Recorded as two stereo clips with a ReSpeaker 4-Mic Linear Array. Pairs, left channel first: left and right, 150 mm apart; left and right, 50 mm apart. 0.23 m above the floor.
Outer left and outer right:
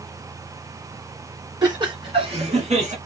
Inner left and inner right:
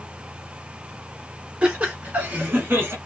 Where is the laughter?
30° right (ahead or behind), 2.5 m; by 3.0 s 55° right (ahead or behind), 2.5 m.